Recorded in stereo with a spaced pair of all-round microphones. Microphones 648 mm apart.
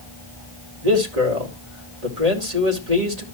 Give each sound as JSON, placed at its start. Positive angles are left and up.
{"t": 0.8, "sound": "a man speaking", "side_deg": -70, "distance_m": 4.0}